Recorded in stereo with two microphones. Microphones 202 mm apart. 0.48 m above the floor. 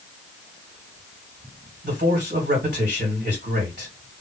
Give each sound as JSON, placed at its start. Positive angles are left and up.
{"t": 1.8, "sound": "a man speaking", "side_deg": -45, "distance_m": 1.7}